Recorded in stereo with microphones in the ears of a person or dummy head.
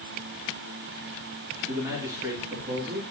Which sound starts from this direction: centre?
A man speaking, at 1.7 s.